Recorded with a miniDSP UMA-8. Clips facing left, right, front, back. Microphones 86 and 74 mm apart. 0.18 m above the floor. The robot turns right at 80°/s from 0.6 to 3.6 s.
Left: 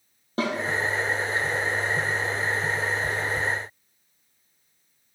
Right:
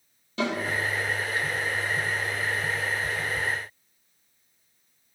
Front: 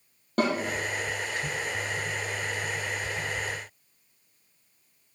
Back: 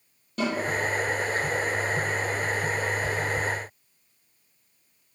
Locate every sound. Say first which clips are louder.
0.4 s a snare drum: left 1 dB, front 3 dB; 40° left, 5 m